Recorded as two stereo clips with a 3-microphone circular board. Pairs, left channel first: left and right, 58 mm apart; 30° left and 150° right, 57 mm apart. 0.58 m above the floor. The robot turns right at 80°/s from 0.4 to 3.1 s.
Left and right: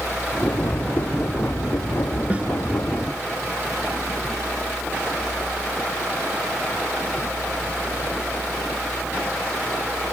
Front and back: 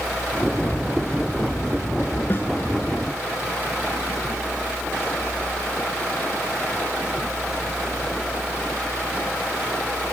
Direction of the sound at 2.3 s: 25° right.